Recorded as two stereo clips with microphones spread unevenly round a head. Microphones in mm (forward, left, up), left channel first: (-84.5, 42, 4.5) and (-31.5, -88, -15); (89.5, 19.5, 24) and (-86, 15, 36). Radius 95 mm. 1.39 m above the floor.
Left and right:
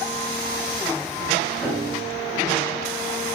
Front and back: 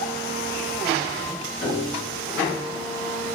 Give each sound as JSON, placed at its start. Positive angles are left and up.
{"t": 1.6, "sound": "a piano", "azimuth_deg": 15, "distance_m": 3.0}